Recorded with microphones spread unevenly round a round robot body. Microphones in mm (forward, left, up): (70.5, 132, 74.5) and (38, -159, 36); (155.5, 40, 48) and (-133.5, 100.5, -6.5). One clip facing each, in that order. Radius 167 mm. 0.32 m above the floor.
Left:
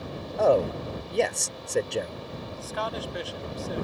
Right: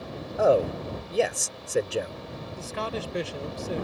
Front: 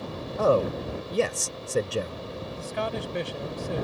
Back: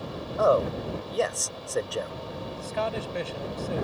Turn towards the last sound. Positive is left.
turn(degrees=-90)